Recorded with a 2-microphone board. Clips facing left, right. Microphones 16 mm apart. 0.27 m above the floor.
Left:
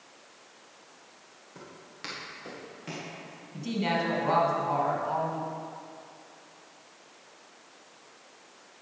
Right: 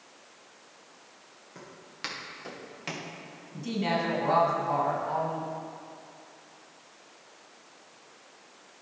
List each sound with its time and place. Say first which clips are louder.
1.6 s footsteps: right 3 dB; 10° right (ahead or behind), 3 m; by 3.1 s 45° right (ahead or behind), 2 m
3.5 s a woman speaking: even; 10° left (ahead or behind), 1.5 m